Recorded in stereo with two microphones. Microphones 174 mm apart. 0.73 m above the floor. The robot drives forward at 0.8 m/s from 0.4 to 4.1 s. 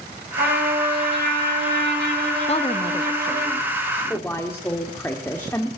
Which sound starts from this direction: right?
A trumpet, at 0.4 s.